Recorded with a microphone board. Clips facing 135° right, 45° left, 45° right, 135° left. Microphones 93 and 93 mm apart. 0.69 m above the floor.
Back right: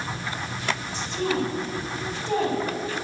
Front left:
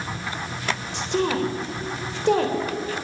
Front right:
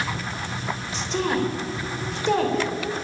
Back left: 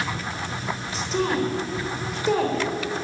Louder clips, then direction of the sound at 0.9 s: Front left 4 dB, back left 1 dB; 45° left.